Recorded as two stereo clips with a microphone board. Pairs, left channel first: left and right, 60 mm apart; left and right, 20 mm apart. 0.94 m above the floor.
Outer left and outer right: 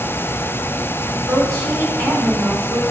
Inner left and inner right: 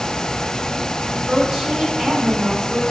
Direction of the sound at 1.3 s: 50° right (ahead or behind).